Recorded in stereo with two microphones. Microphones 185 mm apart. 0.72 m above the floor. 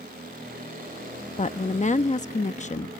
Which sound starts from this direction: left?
A woman speaking, at 1.4 s.